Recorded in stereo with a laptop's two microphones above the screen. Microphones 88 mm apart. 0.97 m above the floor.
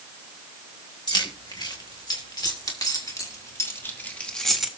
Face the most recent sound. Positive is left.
turn(degrees=-5)  # may be behind; listen again after turning